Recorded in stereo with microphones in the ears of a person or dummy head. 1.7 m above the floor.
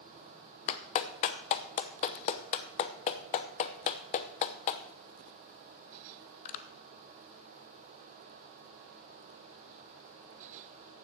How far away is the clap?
About 0.8 m.